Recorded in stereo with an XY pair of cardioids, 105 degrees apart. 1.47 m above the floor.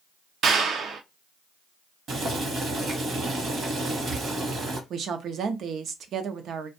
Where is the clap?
60° right, 0.6 m.